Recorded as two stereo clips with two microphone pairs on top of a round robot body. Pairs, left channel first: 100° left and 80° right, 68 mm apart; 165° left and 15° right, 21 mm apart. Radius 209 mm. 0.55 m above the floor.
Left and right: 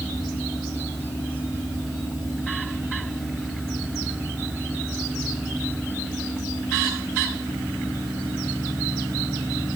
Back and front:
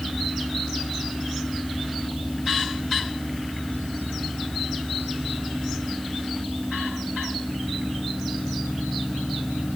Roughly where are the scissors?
No scissors in this recording.